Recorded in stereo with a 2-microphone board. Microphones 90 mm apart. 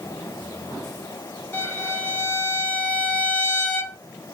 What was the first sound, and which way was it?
A violin, 20° left (ahead or behind).